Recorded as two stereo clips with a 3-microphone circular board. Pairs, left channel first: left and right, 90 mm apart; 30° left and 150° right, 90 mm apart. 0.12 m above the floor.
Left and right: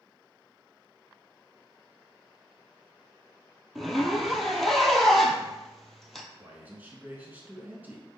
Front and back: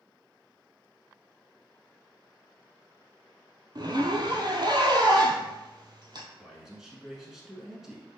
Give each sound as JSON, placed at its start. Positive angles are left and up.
{"t": 3.8, "sound": "a zipper", "azimuth_deg": 175, "distance_m": 0.7}
{"t": 6.4, "sound": "a man speaking", "azimuth_deg": -75, "distance_m": 1.1}